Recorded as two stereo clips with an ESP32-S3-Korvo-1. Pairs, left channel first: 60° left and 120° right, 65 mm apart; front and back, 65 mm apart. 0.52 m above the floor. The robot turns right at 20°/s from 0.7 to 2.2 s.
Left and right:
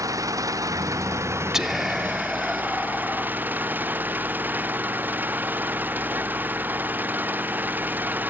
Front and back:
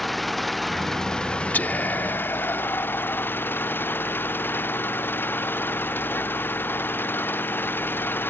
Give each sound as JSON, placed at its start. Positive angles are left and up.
{"t": 0.0, "sound": "an engine running", "azimuth_deg": -90}
{"t": 1.5, "sound": "whispering", "azimuth_deg": -40}